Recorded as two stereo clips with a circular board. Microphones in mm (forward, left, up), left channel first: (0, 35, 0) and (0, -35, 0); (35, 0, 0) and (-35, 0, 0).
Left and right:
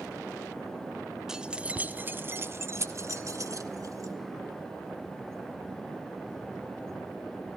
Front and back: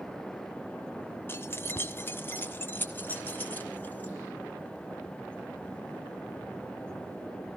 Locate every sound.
1.3 s keys jangling: 15° right, 1.0 m; by 4.1 s 65° right, 2.0 m